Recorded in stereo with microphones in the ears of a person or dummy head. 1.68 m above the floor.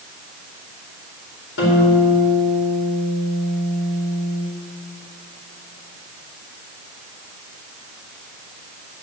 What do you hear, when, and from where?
1.6 s a guitar: 70° left (ahead or behind), 4.5 m